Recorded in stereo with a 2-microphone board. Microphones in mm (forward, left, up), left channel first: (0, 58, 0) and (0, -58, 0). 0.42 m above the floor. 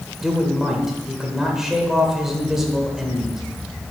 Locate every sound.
0.2 s a man speaking: 5° right (ahead or behind), 1.3 m